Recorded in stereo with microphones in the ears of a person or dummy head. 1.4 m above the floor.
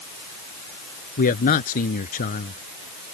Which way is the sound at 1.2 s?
45° left (ahead or behind).